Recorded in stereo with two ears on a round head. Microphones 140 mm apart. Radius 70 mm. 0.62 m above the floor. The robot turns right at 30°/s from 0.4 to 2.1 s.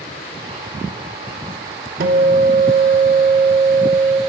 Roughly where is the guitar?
Right.